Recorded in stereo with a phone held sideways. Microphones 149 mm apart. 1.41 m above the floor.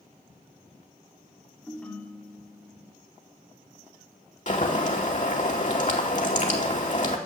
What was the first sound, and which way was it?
A ringtone, 10° left (ahead or behind).